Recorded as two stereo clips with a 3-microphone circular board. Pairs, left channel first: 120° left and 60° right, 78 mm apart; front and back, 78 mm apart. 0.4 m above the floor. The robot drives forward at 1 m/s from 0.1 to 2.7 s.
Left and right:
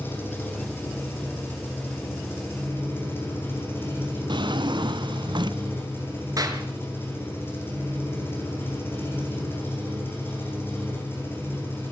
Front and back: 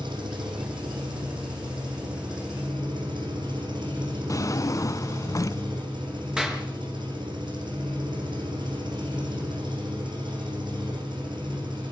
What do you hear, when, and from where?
0.0 s an engine running: 175° right, 6.5 m
4.3 s a drawer: 45° right, 1.0 m
6.4 s a clap: 100° right, 5.5 m